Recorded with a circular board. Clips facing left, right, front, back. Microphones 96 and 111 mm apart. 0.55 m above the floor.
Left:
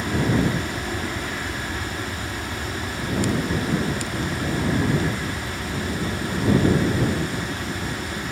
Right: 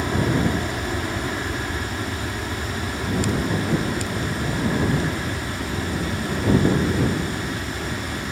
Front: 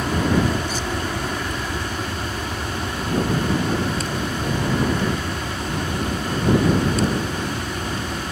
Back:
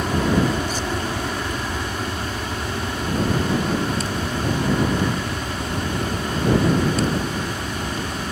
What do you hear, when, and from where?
0.0 s an aircraft: 110° right